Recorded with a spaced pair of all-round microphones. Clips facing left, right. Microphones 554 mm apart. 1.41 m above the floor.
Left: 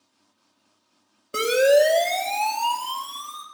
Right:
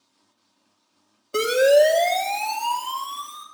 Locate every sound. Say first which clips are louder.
1.3 s a siren: right 1 dB; 45° left (ahead or behind), 3.5 m; by 3.4 s 75° left (ahead or behind), 3.5 m